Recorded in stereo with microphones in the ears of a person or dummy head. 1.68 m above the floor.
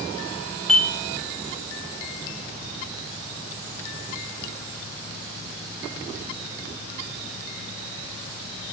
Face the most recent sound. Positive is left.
turn(degrees=5)  # may be behind; listen again after turning